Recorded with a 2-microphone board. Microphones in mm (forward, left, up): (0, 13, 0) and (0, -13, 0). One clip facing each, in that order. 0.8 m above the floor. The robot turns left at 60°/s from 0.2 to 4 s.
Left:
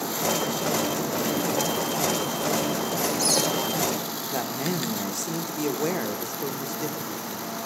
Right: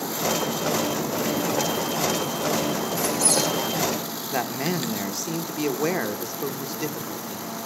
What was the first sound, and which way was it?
A squeak, 10° left (ahead or behind).